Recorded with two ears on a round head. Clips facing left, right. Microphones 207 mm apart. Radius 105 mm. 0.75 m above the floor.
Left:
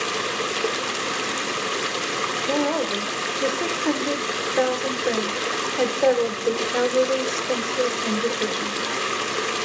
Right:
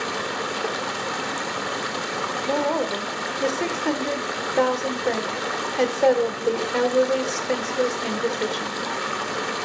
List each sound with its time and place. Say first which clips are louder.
0.0 s running water: left 1 dB; 40° left (ahead or behind), 0.8 m
2.5 s a woman speaking: left 1 dB; 5° left (ahead or behind), 2 m